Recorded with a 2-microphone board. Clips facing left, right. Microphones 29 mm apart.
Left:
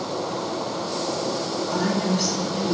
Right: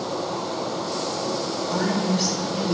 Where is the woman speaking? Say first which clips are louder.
Even; 5° right (ahead or behind), 1.2 m.